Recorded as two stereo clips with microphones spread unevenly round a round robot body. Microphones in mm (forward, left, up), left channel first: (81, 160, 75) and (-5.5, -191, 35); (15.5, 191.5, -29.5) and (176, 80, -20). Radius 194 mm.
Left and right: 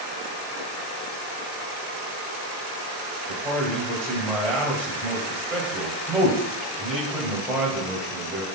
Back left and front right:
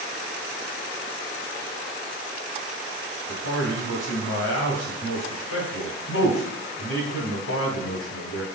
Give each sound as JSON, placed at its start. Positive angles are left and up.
{"t": 3.3, "sound": "a man speaking", "azimuth_deg": 165, "distance_m": 2.5}